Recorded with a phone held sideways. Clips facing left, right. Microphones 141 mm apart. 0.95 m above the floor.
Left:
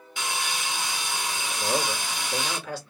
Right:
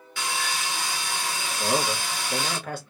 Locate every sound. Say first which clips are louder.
0.2 s sawing: right 1 dB; 20° left (ahead or behind), 0.9 m
1.6 s a man speaking: right 2 dB; 55° right (ahead or behind), 0.9 m